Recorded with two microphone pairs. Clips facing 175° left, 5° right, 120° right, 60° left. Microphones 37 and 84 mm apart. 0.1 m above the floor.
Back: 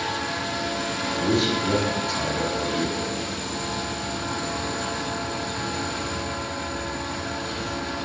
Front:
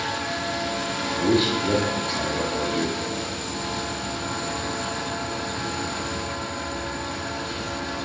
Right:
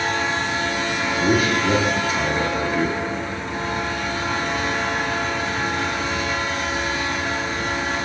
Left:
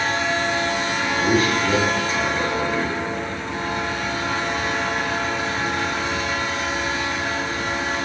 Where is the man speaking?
45° right, 1.5 m.